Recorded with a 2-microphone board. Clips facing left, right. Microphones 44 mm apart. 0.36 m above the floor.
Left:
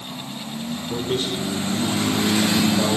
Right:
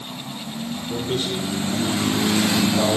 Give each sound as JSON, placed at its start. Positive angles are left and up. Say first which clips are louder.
{"t": 0.9, "sound": "a man speaking", "louder": "left 1 dB", "side_deg": 20, "distance_m": 0.9}